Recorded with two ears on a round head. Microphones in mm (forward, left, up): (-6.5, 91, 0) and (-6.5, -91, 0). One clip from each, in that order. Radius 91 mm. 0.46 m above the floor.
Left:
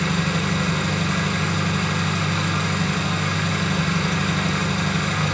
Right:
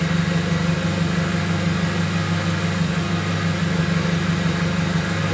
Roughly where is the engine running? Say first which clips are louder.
Left 1 dB; left.